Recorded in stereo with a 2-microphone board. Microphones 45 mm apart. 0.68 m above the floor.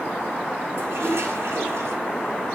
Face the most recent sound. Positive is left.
turn(degrees=-70)  # may be behind; listen again after turning